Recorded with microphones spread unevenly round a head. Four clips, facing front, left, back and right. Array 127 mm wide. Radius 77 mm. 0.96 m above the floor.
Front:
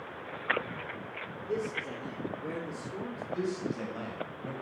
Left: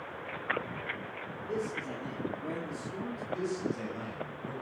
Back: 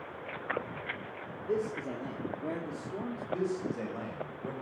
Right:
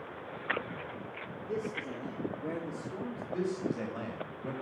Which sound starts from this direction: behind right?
A man speaking, at 3.3 s.